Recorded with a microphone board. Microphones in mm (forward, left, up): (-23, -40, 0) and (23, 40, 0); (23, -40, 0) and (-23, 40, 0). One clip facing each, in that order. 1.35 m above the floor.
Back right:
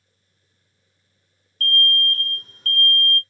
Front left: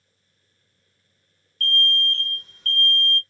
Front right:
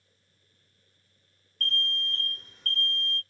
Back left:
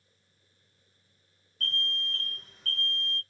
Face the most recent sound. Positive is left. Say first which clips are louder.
# back right 2 dB, front right 2 dB
turn(degrees=-150)